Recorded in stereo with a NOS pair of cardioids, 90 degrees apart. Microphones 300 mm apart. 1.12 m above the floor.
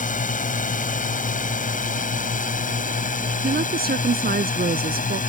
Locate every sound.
0.0 s a drone: 25° left
3.4 s a woman speaking: 30° right